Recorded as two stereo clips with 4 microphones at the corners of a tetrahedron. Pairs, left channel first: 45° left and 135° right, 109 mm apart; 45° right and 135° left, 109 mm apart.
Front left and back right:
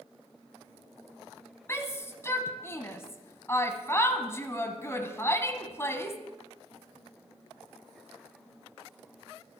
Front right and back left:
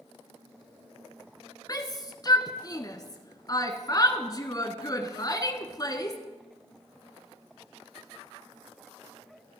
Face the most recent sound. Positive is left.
turn(degrees=-10)